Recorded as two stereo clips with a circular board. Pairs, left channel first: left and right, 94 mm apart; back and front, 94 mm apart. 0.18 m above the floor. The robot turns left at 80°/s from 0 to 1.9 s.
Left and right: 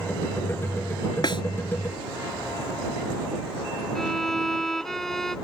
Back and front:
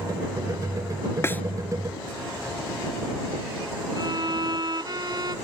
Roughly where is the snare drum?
Behind left.